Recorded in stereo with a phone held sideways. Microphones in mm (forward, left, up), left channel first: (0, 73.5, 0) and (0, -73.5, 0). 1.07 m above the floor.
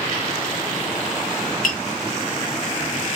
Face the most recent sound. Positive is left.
turn(degrees=60)  # may be behind; listen again after turning